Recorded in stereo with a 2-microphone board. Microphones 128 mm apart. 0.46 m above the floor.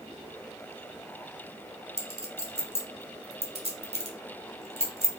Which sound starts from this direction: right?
A clink, at 2.0 s.